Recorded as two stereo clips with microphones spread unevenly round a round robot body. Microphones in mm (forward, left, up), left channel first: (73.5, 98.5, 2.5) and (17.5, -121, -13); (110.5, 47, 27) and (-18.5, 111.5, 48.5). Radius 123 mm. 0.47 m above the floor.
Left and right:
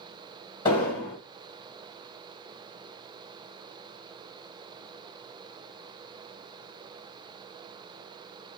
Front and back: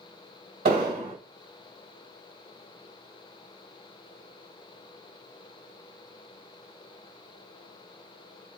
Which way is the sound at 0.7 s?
150° left.